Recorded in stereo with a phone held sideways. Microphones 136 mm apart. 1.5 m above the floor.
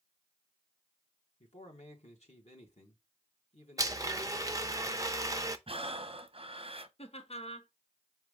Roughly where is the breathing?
Right.